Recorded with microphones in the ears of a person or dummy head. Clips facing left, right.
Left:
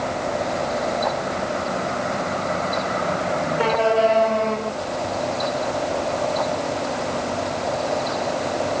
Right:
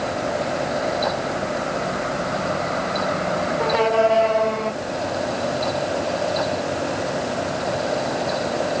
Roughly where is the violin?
No violin in this recording.